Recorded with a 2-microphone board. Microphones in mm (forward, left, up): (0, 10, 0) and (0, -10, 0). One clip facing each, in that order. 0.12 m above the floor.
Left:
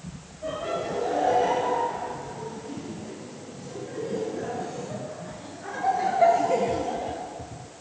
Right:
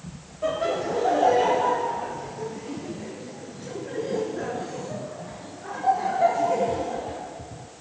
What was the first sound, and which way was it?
Laughter, 60° right (ahead or behind).